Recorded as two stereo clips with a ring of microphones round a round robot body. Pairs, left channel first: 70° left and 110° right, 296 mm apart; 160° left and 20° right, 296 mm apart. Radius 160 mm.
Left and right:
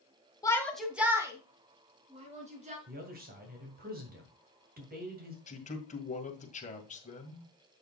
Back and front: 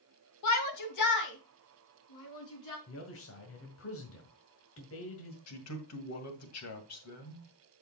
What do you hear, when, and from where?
0.4 s a shout: 145° left, 1.8 m; by 2.8 s straight behind, 4.5 m
2.9 s a man speaking: 170° right, 2.0 m
5.5 s a man speaking: 130° left, 2 m